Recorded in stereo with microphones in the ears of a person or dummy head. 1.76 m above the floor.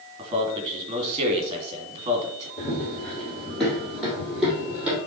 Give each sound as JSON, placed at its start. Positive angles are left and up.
{"t": 0.2, "sound": "a man speaking", "side_deg": -20, "distance_m": 2.5}
{"t": 2.6, "sound": "running footsteps", "side_deg": 20, "distance_m": 4.5}